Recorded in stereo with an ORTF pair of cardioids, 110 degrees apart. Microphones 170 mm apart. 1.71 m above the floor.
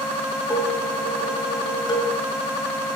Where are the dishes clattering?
25° left, 7.5 m.